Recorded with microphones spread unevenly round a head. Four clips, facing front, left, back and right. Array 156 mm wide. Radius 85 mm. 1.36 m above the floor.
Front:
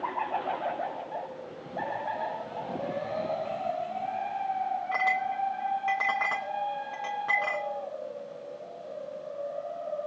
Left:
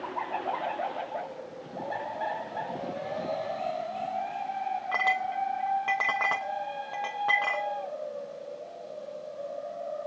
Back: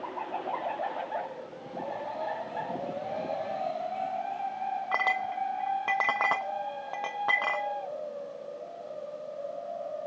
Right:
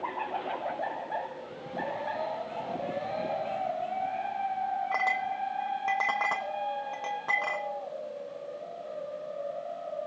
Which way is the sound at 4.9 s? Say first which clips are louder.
Left 1 dB, front 1 dB; straight behind.